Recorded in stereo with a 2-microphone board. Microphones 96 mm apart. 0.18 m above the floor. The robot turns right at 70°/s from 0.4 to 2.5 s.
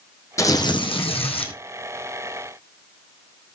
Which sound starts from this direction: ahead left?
Tearing paper, at 0.4 s.